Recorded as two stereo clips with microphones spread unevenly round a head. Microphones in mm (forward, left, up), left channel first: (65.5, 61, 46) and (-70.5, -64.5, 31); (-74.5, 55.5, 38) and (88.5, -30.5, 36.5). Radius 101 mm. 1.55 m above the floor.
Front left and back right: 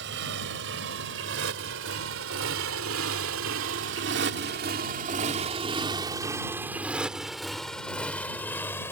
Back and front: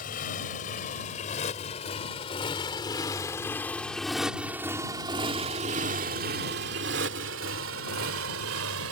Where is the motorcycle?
165° right; by 8.9 s 30° right.